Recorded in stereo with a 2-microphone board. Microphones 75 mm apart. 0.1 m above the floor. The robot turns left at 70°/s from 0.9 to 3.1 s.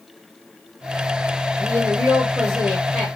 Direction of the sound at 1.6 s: 120° right.